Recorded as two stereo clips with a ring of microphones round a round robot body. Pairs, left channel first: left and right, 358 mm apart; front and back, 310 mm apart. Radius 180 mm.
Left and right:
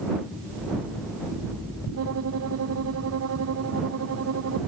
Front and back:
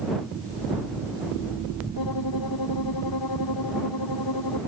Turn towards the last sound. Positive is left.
turn(degrees=-40)